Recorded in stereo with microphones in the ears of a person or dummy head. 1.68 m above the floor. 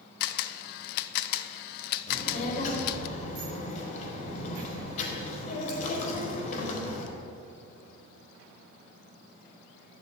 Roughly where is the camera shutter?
Left.